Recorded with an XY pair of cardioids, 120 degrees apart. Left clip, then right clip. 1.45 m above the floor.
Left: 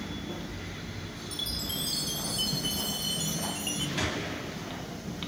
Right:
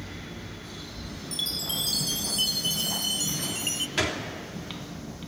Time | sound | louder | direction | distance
1.3 | a chime | right 4 dB | 35° right | 1.1 m
4.0 | a gunshot | right 5 dB | 50° right | 3 m